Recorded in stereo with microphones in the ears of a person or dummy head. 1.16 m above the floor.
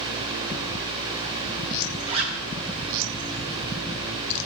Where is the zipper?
30° right (ahead or behind), 1.7 m.